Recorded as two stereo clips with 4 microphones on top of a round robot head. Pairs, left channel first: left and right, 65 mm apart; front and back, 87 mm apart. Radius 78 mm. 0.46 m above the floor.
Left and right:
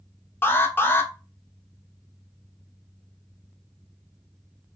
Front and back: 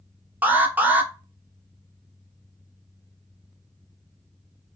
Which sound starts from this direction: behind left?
An alarm, at 0.4 s.